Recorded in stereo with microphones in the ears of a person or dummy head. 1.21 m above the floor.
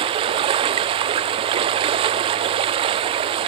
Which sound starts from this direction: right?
Running water, at 0.0 s.